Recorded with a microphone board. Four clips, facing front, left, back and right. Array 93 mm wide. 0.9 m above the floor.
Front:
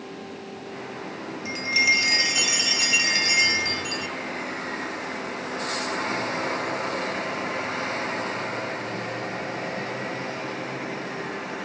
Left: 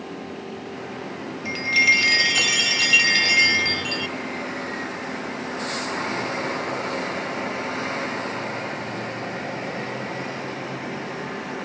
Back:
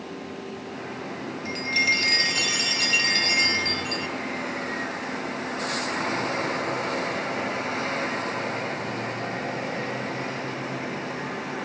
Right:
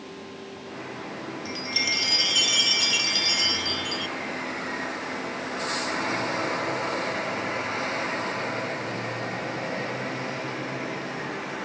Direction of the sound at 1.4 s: 80° left.